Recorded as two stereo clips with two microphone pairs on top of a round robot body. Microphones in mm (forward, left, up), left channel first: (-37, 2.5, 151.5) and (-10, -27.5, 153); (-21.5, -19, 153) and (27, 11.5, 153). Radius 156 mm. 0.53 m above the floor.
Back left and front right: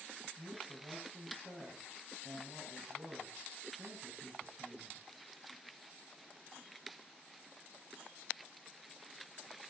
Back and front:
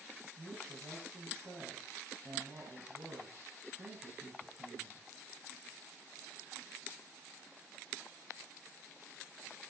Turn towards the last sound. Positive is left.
turn(degrees=-20)